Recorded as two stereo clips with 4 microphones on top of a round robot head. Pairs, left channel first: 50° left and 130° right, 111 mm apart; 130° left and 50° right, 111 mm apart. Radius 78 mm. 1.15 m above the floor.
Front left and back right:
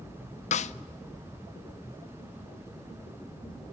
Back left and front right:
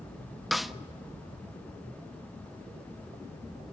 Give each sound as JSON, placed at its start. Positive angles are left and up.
{"t": 0.5, "sound": "a snare drum", "azimuth_deg": 40, "distance_m": 0.6}